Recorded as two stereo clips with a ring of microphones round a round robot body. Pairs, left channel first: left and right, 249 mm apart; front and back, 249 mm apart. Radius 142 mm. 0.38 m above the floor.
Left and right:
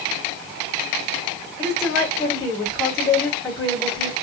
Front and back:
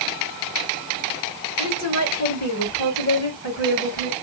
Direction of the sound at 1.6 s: 10° left.